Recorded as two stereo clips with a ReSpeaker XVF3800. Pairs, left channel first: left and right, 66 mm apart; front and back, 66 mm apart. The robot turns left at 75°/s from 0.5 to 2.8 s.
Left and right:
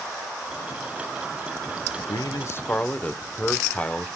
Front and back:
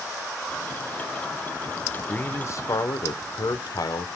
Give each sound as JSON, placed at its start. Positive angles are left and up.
{"t": 2.0, "sound": "a man speaking", "azimuth_deg": 80, "distance_m": 1.0}